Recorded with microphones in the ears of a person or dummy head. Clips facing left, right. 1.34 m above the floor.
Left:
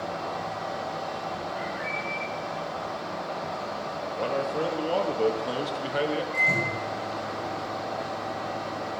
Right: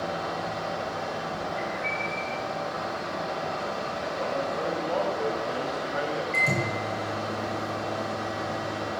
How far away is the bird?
About 6 m.